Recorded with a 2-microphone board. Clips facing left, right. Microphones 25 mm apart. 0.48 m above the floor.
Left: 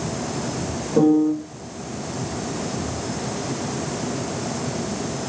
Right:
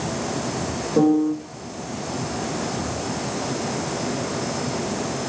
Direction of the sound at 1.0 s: 15° right (ahead or behind).